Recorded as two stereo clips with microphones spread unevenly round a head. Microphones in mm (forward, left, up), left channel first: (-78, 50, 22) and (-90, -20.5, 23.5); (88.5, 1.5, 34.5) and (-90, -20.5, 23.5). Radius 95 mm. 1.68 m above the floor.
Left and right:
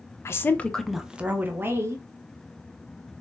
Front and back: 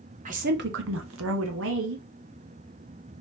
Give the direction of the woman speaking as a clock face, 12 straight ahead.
7 o'clock.